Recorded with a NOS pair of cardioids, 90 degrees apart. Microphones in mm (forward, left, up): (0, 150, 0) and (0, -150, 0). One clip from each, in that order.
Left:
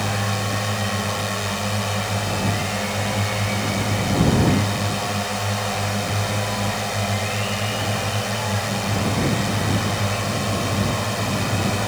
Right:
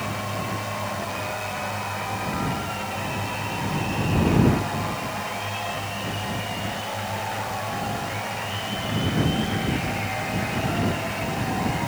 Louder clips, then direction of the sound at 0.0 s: Left 5 dB; 65° left.